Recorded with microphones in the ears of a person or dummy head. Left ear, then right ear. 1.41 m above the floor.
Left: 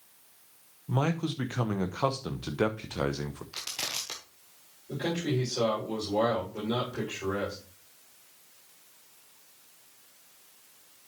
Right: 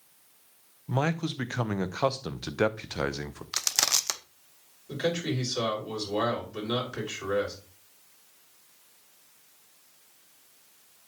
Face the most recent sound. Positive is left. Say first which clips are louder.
# right 2 dB
turn(degrees=-70)  # may be behind; listen again after turning